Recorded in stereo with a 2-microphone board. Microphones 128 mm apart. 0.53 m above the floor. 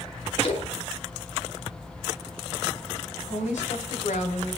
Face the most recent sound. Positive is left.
turn(degrees=70)  # may be behind; listen again after turning